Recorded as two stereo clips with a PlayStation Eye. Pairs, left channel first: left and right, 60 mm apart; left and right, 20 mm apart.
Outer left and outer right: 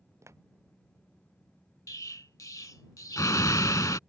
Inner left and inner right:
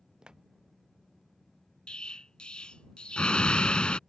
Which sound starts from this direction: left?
An explosion, at 1.9 s.